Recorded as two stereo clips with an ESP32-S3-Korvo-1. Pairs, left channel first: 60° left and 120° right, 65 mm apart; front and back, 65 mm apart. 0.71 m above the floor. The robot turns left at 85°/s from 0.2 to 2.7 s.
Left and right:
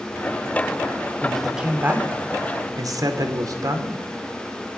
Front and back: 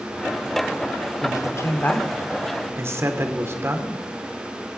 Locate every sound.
1.2 s a man speaking: 5° right, 2 m; by 4.0 s 135° right, 2 m